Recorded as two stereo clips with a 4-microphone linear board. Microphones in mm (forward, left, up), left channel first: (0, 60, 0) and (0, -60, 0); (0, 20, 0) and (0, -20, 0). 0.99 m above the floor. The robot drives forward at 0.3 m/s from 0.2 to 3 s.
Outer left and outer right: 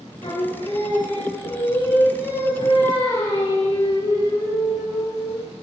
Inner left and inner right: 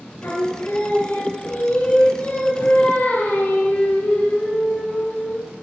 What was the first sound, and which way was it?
Singing, 65° left (ahead or behind).